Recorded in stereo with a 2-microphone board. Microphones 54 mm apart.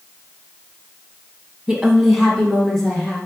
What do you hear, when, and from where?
1.7 s a woman speaking: 15° right (ahead or behind), 1.0 m; by 3.2 s 15° left (ahead or behind), 2.5 m